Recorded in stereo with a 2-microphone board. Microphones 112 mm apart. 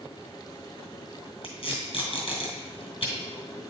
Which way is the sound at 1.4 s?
55° left (ahead or behind).